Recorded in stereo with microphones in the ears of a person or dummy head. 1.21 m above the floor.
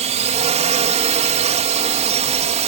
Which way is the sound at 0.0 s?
30° right (ahead or behind).